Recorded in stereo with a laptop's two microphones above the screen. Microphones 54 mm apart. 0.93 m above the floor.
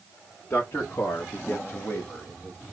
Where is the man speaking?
50° left (ahead or behind), 1.1 m; by 2.6 s 20° left (ahead or behind), 1.6 m.